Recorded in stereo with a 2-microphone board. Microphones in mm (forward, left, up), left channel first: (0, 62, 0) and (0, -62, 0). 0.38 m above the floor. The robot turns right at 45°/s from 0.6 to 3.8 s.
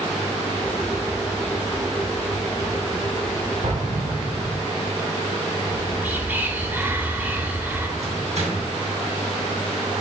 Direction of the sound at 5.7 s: 15° right (ahead or behind).